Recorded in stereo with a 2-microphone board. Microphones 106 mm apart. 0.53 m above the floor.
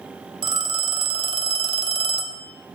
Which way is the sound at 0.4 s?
50° right (ahead or behind).